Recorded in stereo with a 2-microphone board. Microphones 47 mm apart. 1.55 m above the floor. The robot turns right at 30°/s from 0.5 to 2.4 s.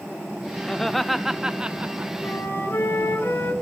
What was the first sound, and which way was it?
Laughter, 170° left.